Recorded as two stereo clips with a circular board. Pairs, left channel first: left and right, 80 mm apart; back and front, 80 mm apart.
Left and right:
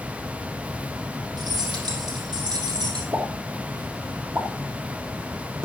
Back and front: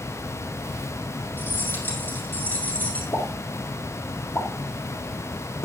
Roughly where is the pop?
Behind right.